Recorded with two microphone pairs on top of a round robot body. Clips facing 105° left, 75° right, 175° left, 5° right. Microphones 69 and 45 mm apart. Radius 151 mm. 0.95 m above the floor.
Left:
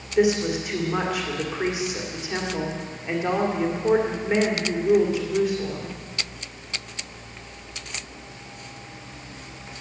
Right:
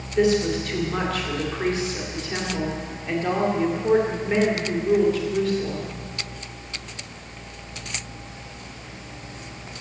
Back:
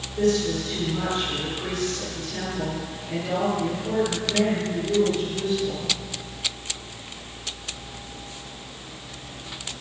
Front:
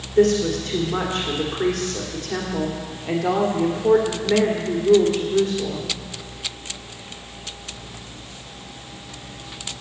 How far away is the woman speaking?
About 2.5 m.